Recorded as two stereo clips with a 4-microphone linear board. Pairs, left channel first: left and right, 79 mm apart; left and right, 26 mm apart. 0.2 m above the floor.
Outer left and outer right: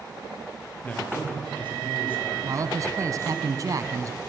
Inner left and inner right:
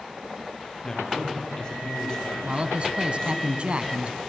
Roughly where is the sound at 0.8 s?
Centre.